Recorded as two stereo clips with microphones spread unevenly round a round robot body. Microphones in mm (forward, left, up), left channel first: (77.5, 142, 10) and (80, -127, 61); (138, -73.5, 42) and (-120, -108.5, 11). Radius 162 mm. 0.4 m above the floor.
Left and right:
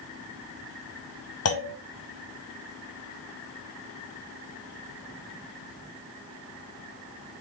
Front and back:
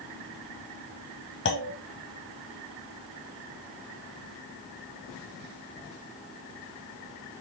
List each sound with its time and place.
1.4 s a clunk: 65° left, 1.2 m